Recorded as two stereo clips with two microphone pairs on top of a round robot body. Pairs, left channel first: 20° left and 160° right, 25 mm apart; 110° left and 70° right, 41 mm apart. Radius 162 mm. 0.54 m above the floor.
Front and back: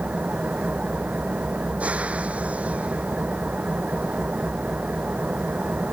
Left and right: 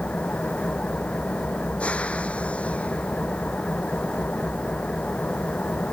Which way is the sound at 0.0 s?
170° left.